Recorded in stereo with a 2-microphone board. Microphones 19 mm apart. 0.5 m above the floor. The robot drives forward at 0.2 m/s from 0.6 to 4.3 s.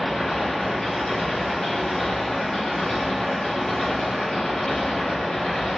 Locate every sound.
0.0 s an engine running: 35° left (ahead or behind), 1.1 m; by 5.8 s 75° left (ahead or behind), 0.7 m